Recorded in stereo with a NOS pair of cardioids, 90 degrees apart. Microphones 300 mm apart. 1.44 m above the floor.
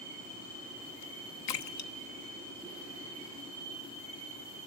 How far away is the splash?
About 1.2 m.